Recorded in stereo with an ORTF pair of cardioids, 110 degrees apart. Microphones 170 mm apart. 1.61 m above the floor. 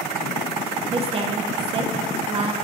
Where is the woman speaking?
30° right, 1.5 m.